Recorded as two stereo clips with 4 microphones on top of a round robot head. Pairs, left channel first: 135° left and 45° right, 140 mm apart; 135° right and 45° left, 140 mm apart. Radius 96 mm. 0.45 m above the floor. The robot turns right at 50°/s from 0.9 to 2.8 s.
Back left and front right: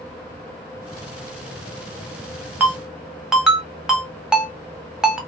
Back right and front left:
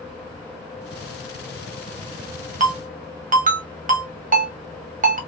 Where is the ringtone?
30° left, 1.0 m; by 5.2 s 40° left, 1.0 m.